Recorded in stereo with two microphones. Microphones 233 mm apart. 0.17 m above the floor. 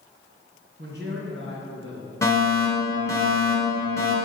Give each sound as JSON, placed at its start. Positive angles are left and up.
{"t": 0.8, "sound": "a man speaking", "side_deg": -50, "distance_m": 2.5}
{"t": 2.2, "sound": "a fire alarm", "side_deg": 15, "distance_m": 3.0}